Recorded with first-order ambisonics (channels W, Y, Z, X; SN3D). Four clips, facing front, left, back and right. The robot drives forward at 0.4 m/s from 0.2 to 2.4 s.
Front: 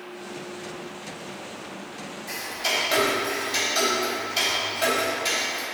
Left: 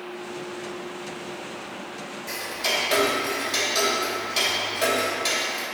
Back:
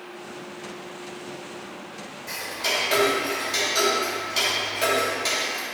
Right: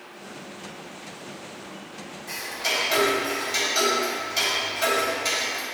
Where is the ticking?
130° left, 2.5 m.